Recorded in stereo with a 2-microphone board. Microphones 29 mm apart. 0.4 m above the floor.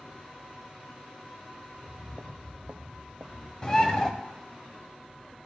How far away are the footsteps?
About 1.0 m.